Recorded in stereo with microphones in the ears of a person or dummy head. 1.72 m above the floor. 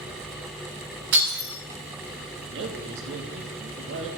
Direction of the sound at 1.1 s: 65° right (ahead or behind).